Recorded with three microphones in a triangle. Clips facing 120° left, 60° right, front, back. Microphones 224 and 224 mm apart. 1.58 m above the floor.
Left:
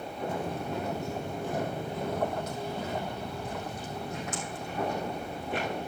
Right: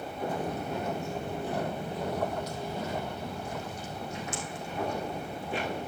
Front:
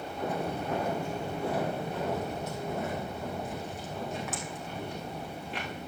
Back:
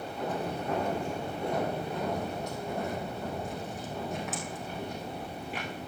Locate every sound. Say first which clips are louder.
0.3 s footsteps: even, even; 70° left, 1.8 m; by 5.8 s 90° left, 7.5 m